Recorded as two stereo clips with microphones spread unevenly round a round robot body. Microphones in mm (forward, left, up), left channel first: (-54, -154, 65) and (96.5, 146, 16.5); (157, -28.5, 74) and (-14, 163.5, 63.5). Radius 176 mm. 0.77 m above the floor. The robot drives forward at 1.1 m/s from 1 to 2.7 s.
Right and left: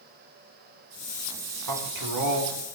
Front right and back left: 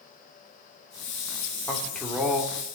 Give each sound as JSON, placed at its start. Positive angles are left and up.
{"t": 1.7, "sound": "a man speaking", "azimuth_deg": 35, "distance_m": 3.0}